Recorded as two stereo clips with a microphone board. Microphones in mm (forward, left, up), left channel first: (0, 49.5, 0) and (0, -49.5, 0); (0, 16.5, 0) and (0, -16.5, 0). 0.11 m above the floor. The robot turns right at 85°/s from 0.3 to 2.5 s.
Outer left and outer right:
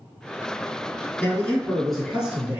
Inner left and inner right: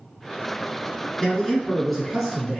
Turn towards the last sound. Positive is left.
turn(degrees=-15)  # may be behind; listen again after turning